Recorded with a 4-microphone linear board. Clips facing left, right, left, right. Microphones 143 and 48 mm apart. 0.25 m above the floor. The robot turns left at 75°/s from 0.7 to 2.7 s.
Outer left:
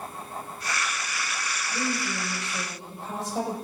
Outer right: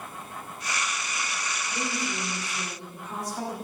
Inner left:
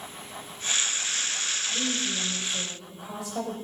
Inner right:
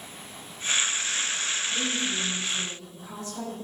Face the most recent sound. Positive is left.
turn(degrees=95)